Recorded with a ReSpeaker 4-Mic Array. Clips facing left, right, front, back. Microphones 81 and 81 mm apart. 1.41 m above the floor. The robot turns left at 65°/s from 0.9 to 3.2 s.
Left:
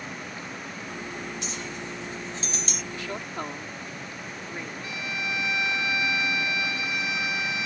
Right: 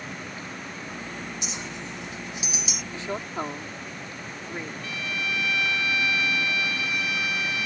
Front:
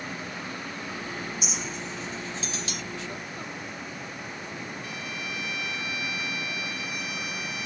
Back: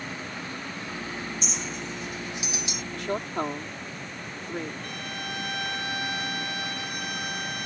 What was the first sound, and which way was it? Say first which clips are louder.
A clink: left 1 dB, even; 70° right.